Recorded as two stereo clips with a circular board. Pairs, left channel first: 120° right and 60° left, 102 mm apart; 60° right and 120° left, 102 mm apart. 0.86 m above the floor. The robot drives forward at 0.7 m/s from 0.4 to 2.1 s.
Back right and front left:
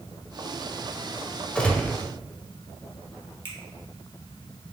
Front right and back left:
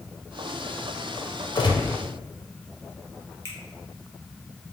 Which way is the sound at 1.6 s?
40° right.